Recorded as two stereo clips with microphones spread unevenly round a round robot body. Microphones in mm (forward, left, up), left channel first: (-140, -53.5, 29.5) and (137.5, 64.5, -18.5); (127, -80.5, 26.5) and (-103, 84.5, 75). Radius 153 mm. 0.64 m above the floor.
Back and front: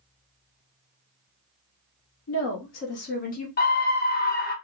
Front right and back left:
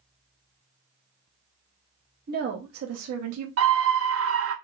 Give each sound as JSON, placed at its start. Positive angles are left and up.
{"t": 2.3, "sound": "a woman speaking", "azimuth_deg": -160, "distance_m": 0.7}
{"t": 3.6, "sound": "a scream", "azimuth_deg": 150, "distance_m": 0.7}